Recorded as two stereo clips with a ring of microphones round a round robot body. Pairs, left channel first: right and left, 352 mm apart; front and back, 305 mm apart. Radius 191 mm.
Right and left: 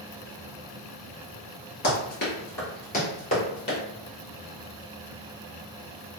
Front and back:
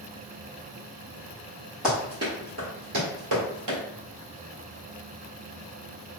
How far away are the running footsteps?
About 1.0 m.